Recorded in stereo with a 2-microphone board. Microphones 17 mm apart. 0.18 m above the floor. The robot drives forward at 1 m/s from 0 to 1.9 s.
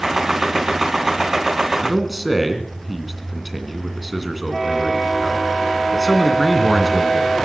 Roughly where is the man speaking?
Centre.